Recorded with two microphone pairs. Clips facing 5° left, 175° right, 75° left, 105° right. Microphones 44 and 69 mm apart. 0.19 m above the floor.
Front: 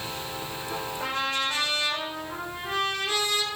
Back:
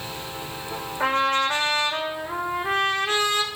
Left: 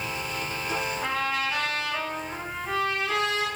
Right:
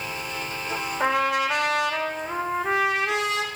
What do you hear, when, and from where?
1.0 s a trumpet: 125° right, 3 m